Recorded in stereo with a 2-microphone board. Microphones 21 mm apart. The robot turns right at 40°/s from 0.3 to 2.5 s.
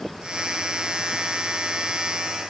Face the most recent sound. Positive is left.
No sound to turn to.